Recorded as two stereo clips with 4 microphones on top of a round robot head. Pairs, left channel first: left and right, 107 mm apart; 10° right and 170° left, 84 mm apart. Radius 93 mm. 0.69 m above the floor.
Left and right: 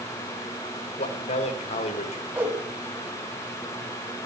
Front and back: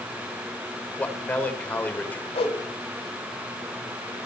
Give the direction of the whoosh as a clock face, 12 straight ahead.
12 o'clock.